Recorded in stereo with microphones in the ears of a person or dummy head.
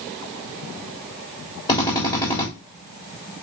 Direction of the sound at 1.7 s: 30° left (ahead or behind).